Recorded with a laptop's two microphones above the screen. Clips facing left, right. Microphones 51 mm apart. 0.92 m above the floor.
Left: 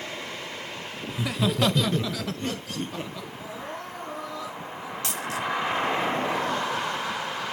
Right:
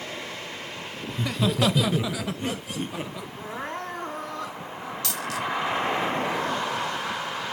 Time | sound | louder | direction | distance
1.1 | laughter | even | 10° left (ahead or behind) | 0.8 m
3.4 | crying | right 5 dB | 50° right (ahead or behind) | 4.5 m
5.0 | a dropped coin | even | 30° left (ahead or behind) | 1.3 m